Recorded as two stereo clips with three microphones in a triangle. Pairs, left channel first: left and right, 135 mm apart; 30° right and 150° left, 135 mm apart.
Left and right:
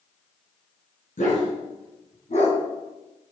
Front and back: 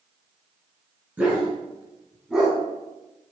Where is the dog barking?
70° left, 4.5 m; by 2.6 s 65° left, 2.5 m.